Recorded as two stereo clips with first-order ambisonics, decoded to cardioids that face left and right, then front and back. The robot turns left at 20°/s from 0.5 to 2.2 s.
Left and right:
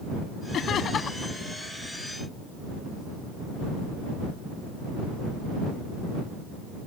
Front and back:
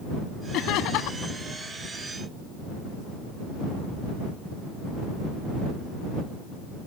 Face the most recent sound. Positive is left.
turn(degrees=5)